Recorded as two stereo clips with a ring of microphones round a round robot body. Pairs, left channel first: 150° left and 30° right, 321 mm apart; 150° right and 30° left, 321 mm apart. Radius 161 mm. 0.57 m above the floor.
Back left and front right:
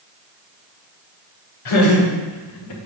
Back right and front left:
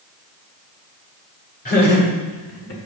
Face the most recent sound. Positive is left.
turn(degrees=170)